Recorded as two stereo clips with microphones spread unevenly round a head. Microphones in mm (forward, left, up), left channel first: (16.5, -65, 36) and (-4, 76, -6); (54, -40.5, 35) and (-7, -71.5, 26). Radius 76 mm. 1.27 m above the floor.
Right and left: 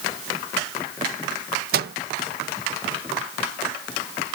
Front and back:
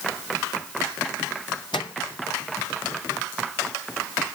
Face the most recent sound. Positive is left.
turn(degrees=75)